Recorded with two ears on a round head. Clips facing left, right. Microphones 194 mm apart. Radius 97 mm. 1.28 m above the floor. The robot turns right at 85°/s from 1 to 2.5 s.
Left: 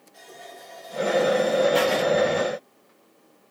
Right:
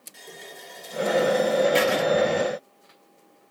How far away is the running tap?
About 3 m.